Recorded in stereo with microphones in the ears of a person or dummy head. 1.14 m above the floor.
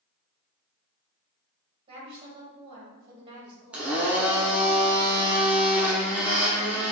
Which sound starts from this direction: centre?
A blender, at 3.7 s.